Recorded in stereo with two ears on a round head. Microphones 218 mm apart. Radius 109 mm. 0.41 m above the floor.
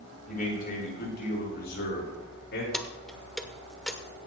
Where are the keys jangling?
Centre (ahead or behind), 0.8 m.